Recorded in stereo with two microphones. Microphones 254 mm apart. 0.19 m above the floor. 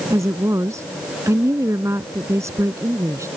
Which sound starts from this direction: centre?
A woman speaking, at 0.1 s.